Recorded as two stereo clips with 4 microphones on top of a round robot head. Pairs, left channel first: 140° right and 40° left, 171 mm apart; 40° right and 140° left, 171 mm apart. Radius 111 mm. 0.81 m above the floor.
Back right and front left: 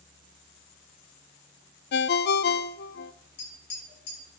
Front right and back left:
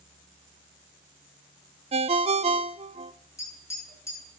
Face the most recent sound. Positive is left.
turn(degrees=-115)